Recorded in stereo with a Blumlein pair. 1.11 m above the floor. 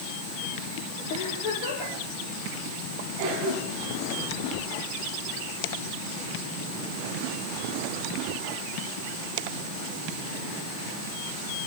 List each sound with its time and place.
1.1 s a giggle: 45° left, 8.5 m
3.2 s a cough: 45° right, 7.5 m